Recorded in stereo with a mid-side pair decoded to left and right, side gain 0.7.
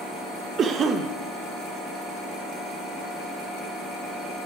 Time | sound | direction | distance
0.6 | a cough | 35° right | 2 m